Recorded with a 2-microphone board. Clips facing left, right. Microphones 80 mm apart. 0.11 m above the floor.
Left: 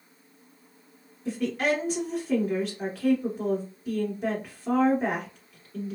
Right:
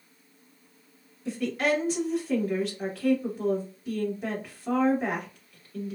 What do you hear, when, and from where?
1.2 s a woman speaking: centre (ahead or behind), 1.2 m